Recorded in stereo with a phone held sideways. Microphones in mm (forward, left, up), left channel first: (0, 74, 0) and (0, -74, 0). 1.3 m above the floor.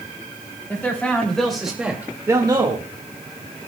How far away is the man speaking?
About 3.5 m.